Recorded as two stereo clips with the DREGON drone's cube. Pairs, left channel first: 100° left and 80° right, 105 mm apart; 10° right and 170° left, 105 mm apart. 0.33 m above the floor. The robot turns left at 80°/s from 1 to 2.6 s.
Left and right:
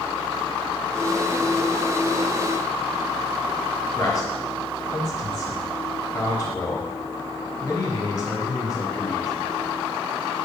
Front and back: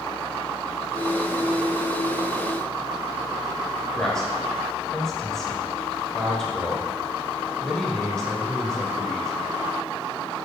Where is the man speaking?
70° left, 1.6 m.